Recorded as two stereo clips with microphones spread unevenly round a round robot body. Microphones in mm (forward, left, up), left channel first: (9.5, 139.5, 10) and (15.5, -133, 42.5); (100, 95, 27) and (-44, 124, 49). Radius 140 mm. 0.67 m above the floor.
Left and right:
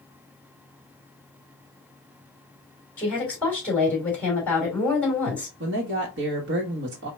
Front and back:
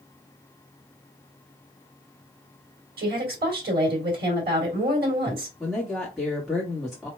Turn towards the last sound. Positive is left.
turn(degrees=-90)